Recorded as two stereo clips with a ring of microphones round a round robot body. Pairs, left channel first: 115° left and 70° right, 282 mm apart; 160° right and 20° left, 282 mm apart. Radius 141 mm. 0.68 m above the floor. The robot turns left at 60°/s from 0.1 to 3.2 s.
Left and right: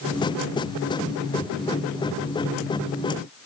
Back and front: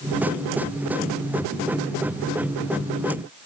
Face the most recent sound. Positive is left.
No sound to turn to.